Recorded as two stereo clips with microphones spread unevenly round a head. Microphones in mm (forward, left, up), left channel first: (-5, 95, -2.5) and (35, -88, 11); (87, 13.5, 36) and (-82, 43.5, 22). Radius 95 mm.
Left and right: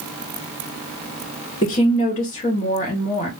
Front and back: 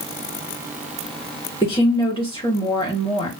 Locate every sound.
1.6 s a woman speaking: 50° left, 2.5 m